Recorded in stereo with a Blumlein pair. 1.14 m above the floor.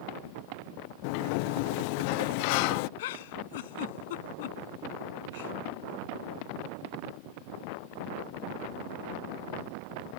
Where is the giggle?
55° left.